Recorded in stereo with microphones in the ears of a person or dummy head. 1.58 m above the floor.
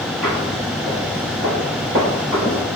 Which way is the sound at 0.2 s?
Centre (ahead or behind).